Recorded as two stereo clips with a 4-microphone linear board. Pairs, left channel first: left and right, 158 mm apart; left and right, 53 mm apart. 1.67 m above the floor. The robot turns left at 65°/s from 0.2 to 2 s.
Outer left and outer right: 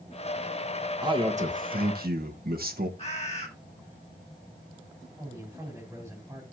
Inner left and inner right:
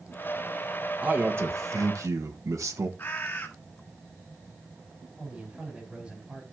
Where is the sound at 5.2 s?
15° right (ahead or behind), 6 m.